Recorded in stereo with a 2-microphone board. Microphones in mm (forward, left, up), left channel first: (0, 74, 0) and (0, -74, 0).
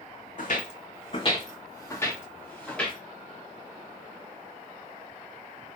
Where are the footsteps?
70° left (ahead or behind), 0.7 m; by 3.0 s 5° left (ahead or behind), 1.5 m.